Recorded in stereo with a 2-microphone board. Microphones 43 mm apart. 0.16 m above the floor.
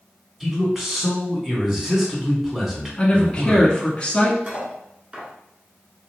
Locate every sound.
0.4 s a man speaking: 10° right (ahead or behind), 1.3 m
3.0 s a woman speaking: 25° left (ahead or behind), 1.3 m
4.5 s cutlery clinking: 35° right (ahead or behind), 1.0 m